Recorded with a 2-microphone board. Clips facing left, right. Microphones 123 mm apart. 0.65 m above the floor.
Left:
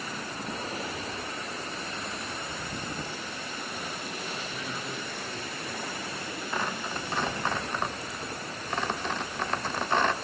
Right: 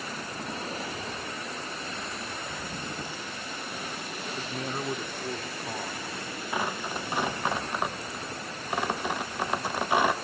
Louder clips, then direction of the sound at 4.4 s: Right 3 dB; 55° right (ahead or behind).